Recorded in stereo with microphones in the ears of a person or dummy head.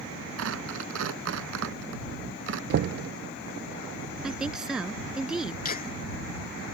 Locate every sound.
0.4 s tearing paper: 70° right (ahead or behind)
2.7 s knocking: 55° right (ahead or behind)
4.2 s a woman speaking: centre (ahead or behind)
5.6 s laughter: 40° left (ahead or behind)